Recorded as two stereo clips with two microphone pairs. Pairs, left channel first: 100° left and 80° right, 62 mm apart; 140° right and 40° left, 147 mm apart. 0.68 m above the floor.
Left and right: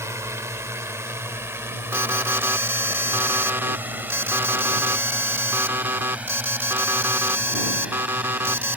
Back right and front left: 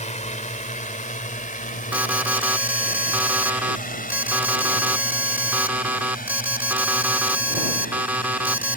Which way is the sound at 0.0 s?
110° right.